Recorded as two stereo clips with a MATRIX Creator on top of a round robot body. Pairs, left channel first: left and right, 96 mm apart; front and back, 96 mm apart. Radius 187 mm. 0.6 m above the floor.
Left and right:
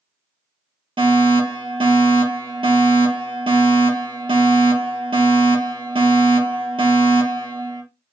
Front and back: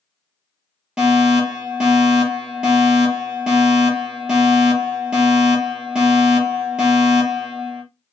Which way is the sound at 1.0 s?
95° right.